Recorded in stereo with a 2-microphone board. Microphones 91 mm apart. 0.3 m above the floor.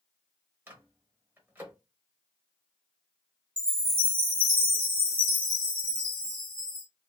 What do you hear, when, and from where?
0.7 s a microwave: 20° right (ahead or behind), 0.8 m
3.6 s a chime: 20° right (ahead or behind), 1.5 m